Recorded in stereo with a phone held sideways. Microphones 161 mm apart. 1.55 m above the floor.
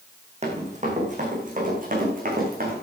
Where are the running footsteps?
40° right (ahead or behind), 4.5 m; by 2.7 s 60° right (ahead or behind), 6 m.